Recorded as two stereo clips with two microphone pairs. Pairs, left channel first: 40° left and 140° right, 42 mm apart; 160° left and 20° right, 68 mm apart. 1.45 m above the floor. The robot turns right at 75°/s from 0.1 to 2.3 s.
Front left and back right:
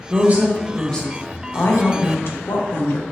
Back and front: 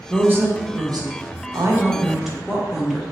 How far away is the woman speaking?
About 0.7 m.